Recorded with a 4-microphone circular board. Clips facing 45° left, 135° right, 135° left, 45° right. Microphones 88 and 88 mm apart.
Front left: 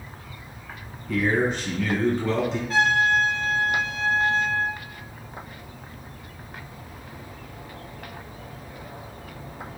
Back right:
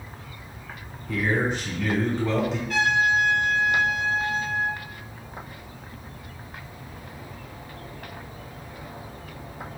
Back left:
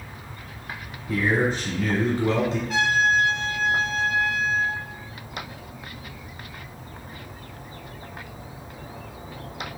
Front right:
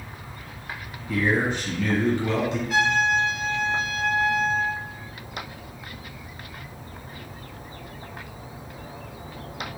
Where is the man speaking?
135° left, 1.3 m.